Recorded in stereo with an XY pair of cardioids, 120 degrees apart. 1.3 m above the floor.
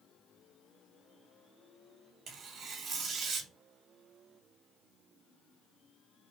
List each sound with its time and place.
2.3 s tearing paper: 55° right, 1.7 m